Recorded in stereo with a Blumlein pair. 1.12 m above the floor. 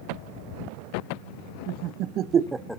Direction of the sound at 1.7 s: 45° right.